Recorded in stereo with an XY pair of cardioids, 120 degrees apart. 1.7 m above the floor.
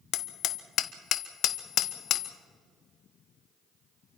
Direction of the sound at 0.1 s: 65° left.